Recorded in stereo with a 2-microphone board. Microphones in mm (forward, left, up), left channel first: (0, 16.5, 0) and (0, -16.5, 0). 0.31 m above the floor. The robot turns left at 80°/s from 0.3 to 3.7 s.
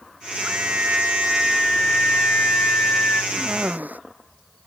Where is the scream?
90° right; by 3.2 s 50° left.